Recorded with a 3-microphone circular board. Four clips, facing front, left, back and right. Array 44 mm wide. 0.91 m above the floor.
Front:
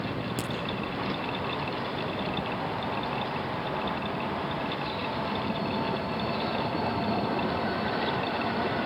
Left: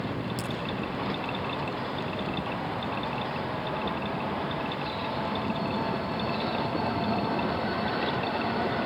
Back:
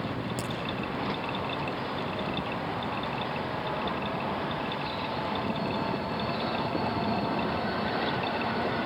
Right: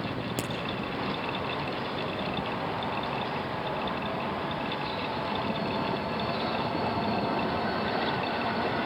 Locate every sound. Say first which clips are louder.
0.4 s a crack: right 1 dB, front 1 dB; 70° right, 7 m